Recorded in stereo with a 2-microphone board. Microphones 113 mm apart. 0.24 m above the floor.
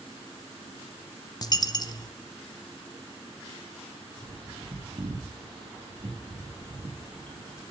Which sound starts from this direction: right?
A bird, at 4.2 s.